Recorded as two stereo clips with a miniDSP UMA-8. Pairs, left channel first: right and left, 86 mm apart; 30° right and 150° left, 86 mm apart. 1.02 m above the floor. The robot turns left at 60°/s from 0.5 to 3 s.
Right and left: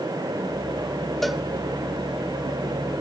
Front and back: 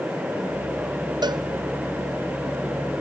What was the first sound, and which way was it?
A cowbell, 175° right.